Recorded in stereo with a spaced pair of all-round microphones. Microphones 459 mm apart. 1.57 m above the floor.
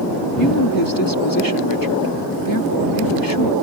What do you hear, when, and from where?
0.4 s a woman speaking: 50° left (ahead or behind)